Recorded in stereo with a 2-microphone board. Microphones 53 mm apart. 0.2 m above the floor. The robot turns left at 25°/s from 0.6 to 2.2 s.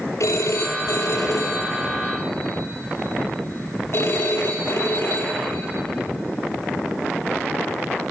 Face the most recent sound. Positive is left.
turn(degrees=65)